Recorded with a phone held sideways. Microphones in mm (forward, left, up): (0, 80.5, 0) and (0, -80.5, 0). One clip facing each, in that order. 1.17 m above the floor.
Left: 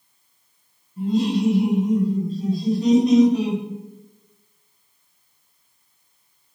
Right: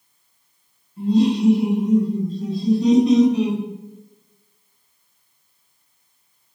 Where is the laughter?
50° left (ahead or behind), 1.5 m.